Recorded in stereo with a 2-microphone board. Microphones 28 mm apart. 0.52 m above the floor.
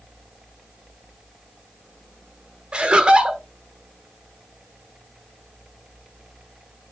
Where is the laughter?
45° right (ahead or behind), 1.1 m.